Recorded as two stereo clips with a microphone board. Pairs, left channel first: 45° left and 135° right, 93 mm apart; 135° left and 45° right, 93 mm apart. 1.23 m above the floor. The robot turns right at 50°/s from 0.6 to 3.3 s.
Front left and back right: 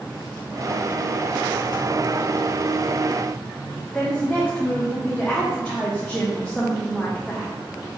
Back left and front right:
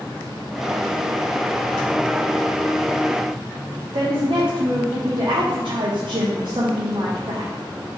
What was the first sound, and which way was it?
A woman speaking, 35° right.